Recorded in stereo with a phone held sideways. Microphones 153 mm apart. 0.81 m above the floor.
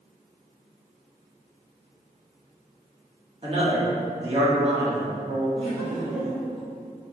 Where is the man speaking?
35° right (ahead or behind), 1.3 m.